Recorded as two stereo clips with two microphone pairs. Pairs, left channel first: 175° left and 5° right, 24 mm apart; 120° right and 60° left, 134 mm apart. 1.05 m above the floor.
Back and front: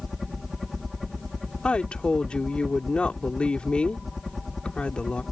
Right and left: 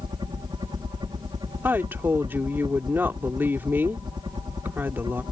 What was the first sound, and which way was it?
A helicopter, 80° left.